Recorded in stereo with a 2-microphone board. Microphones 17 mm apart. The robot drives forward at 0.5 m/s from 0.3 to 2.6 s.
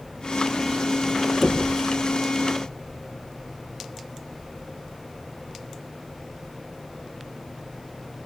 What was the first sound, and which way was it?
Knocking, 40° left (ahead or behind).